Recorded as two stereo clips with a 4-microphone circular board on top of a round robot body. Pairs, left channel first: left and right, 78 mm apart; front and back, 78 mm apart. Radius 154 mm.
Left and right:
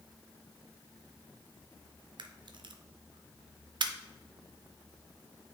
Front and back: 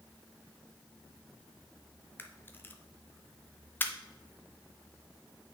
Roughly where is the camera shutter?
Ahead right.